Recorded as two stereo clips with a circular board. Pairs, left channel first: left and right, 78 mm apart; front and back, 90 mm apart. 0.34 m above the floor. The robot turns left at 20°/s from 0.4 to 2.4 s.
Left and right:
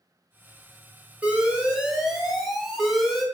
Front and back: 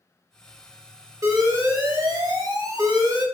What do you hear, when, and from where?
1.2 s an alarm: 150° right, 0.7 m; by 3.2 s 175° right, 0.7 m